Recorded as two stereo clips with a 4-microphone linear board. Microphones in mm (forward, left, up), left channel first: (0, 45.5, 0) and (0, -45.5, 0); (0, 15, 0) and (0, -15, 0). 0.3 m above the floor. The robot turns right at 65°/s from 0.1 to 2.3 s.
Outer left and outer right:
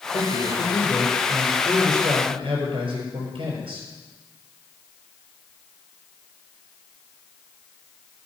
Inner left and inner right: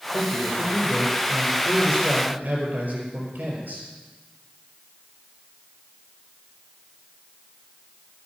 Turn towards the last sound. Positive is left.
turn(degrees=-115)